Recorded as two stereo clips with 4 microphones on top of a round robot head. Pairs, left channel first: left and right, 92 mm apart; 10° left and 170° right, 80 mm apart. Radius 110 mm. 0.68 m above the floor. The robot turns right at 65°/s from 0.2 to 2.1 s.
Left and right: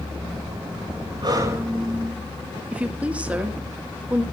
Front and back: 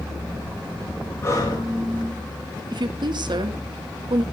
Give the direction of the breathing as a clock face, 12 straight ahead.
2 o'clock.